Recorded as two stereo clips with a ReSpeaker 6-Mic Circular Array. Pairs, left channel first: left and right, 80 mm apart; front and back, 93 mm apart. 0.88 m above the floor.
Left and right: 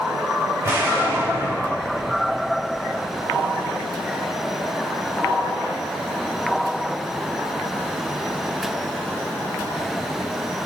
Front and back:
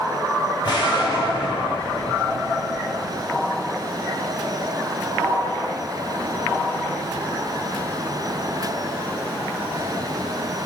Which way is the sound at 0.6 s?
30° right.